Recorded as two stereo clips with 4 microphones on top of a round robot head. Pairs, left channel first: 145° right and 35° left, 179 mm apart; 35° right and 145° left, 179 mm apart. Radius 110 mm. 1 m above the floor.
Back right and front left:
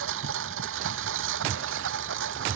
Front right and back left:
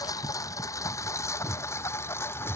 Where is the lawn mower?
40° left; by 2.6 s 45° left.